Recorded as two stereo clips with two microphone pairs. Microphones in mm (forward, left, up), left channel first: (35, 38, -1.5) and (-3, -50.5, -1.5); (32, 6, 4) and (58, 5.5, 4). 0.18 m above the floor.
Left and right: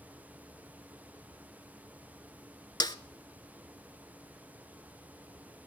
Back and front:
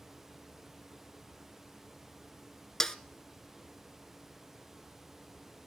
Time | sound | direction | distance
2.8 | a snare drum | 105° left | 0.6 m